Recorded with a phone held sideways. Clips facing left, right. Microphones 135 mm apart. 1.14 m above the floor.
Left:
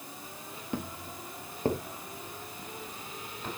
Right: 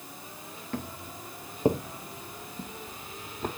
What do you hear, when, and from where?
0.7 s footsteps: 15° left (ahead or behind), 1.2 m; by 3.5 s 50° right (ahead or behind), 2 m